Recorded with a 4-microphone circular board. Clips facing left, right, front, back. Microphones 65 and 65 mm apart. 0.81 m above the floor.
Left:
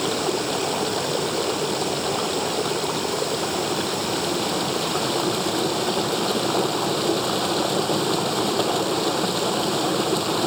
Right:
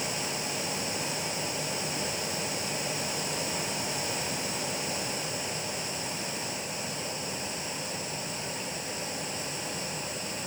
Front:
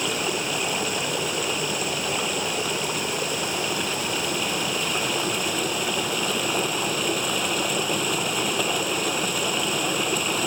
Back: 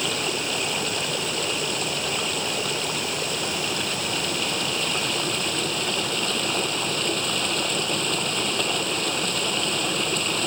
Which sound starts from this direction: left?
Running water, at 0.0 s.